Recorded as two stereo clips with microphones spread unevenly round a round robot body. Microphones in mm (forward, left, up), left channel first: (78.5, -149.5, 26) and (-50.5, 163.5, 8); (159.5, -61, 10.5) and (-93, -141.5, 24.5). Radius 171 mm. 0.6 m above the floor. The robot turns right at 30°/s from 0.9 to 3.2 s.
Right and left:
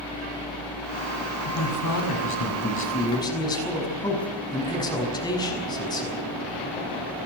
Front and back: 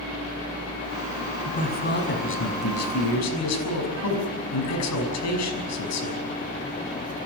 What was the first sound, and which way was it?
A man speaking, 45° right.